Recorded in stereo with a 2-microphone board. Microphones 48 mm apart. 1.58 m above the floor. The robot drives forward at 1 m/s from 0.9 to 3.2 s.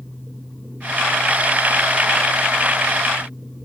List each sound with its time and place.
Only background noise.